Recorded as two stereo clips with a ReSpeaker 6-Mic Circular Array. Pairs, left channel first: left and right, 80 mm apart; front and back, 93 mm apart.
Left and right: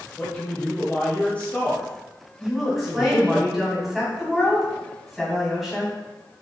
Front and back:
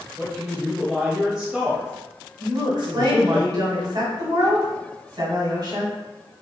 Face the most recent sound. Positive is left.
turn(degrees=-175)